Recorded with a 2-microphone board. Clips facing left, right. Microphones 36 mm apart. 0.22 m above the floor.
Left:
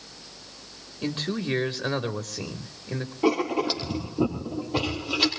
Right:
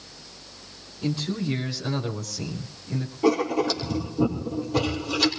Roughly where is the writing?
Centre.